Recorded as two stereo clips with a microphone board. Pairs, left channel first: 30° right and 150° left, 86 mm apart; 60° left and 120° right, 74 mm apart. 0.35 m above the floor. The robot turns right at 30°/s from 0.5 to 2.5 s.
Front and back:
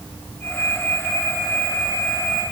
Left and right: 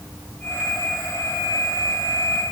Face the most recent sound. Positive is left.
No sound to turn to.